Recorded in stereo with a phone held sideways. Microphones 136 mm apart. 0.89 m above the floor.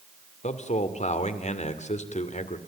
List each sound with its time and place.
0.4 s a man speaking: 60° left (ahead or behind), 2 m